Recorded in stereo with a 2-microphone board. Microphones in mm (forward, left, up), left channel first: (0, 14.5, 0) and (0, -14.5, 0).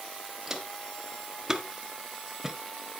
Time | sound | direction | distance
0.5 | footsteps | 15° right (ahead or behind) | 1.7 m